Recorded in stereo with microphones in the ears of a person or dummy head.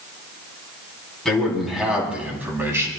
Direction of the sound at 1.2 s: Centre (ahead or behind).